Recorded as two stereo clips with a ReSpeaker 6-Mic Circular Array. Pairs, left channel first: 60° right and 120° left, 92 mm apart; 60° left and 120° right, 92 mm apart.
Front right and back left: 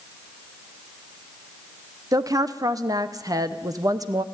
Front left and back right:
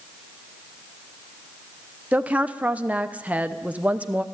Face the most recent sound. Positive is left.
turn(degrees=165)